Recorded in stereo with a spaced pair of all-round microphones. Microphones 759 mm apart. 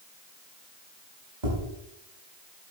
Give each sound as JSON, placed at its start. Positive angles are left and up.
{"t": 1.4, "sound": "tapping", "side_deg": -70, "distance_m": 5.0}